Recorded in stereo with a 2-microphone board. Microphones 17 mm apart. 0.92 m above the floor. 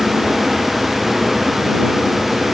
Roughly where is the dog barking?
No dog barking in this recording.